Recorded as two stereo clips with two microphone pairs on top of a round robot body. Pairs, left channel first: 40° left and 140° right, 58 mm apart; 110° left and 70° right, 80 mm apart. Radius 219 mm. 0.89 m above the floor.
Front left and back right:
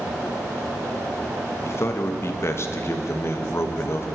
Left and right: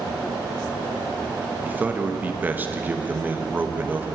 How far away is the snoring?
No snoring in this recording.